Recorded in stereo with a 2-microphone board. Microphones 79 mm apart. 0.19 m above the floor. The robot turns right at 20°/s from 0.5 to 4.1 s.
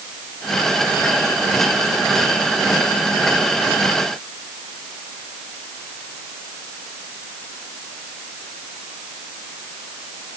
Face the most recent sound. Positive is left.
No sound to turn to.